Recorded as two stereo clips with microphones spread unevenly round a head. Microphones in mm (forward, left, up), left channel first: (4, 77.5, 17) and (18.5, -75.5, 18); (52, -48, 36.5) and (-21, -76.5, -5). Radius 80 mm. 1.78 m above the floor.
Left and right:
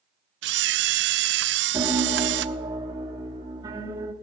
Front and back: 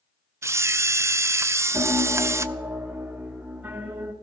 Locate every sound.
0.4 s a camera shutter: 90° right, 0.5 m
1.7 s a piano: 50° right, 1.3 m